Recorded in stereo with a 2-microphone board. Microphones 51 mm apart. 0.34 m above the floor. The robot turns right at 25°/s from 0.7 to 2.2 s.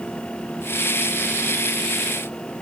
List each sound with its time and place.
Only background noise.